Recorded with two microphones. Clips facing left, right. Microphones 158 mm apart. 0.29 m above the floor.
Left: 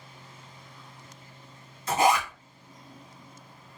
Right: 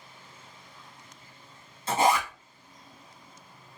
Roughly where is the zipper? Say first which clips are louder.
Left 1 dB; right.